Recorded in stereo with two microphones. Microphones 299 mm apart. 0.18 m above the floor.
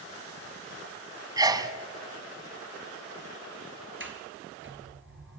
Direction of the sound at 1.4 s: 15° right (ahead or behind).